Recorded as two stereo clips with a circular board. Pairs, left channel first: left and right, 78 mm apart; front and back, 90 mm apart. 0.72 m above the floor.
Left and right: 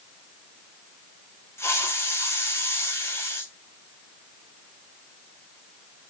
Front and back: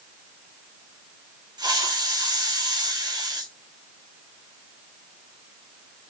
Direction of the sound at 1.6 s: 140° left.